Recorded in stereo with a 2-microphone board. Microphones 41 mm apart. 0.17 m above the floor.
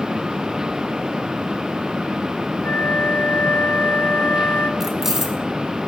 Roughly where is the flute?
Left.